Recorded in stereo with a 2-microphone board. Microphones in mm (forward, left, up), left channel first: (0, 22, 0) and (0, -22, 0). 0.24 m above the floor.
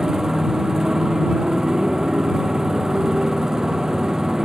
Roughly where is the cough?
No cough in this recording.